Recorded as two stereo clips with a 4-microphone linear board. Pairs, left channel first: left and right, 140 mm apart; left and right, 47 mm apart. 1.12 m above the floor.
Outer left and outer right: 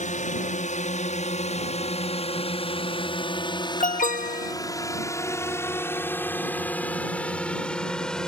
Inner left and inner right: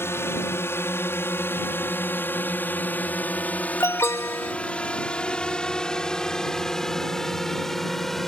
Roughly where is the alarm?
Left.